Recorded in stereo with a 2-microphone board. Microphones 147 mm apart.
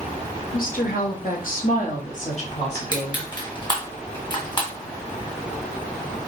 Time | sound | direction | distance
0.5 | a woman speaking | 70° left (ahead or behind) | 1.1 m
2.8 | crushing | 30° left (ahead or behind) | 1.7 m